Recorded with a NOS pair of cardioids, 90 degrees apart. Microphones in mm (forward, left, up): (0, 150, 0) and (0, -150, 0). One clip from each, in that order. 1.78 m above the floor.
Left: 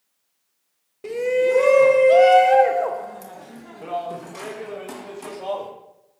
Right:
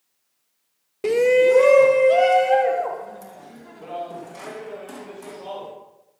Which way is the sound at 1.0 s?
45° right.